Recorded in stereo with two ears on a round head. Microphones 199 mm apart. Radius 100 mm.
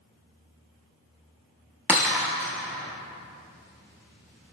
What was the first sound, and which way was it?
Breaking glass, 10° right (ahead or behind).